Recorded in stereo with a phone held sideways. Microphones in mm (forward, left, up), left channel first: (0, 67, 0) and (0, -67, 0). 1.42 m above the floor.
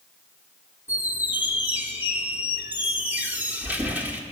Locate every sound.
0.9 s a squeak: 15° right (ahead or behind), 1.1 m